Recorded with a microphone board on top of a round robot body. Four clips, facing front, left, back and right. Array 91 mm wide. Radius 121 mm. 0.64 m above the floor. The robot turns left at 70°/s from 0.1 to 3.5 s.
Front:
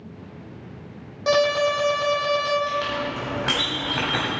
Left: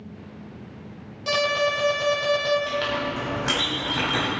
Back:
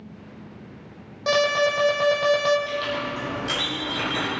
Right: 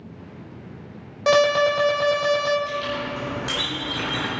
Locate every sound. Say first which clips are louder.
1.3 s an alarm: right 6 dB, front 1 dB; 90° right, 3 m; by 2.6 s straight behind, 3 m
2.7 s a clink: left 1 dB, front 2 dB; 85° left, 4 m; by 4.3 s 25° left, 4 m